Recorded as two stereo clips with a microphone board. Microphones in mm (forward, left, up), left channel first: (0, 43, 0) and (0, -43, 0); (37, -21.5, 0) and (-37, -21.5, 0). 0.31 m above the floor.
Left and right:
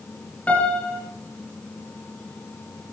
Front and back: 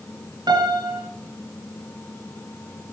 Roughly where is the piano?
Behind.